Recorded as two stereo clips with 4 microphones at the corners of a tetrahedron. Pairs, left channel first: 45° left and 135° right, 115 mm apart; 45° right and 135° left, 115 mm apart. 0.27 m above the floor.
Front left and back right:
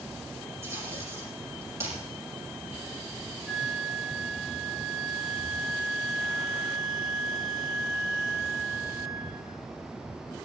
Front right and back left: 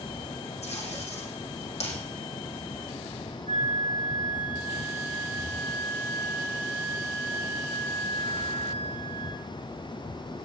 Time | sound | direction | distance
0.6 | tape being pulled | 70° right | 6 m
3.5 | a flute | 135° left | 8.5 m